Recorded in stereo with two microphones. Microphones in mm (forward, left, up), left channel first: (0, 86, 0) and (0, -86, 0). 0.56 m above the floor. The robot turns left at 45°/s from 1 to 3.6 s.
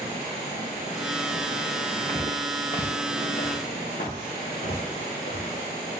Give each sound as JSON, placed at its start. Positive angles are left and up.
{"t": 2.1, "sound": "footsteps", "side_deg": 15, "distance_m": 2.5}